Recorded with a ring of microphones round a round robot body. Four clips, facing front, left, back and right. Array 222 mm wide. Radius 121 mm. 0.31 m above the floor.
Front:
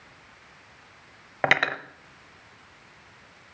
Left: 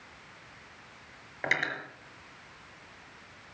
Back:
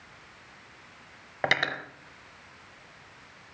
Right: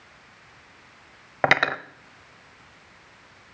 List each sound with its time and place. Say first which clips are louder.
1.4 s cutlery clinking: right 11 dB, front 4 dB; 75° right, 0.9 m